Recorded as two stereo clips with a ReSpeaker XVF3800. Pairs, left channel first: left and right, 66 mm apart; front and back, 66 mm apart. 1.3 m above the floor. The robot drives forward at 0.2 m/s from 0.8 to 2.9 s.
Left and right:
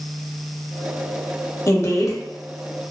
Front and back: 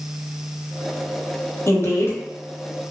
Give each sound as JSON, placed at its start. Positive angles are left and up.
{"t": 1.7, "sound": "a woman speaking", "azimuth_deg": 40, "distance_m": 0.6}